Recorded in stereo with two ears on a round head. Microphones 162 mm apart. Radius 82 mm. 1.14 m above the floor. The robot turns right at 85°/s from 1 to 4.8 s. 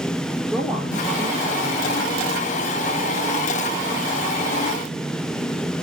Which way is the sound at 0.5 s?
Straight behind.